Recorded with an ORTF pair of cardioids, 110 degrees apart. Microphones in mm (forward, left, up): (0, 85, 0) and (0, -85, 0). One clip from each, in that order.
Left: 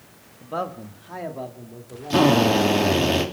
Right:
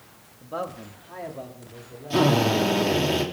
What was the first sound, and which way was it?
A man speaking, 15° left.